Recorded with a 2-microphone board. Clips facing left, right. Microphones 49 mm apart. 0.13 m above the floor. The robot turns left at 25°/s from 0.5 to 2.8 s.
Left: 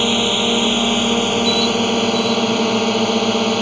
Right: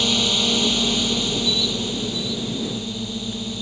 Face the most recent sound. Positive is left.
turn(degrees=90)